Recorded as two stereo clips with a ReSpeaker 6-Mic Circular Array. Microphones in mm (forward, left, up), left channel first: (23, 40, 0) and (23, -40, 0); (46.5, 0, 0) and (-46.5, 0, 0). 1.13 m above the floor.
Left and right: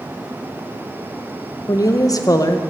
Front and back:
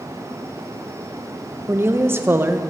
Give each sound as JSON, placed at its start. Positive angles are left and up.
{"t": 1.7, "sound": "a woman speaking", "azimuth_deg": 120, "distance_m": 0.9}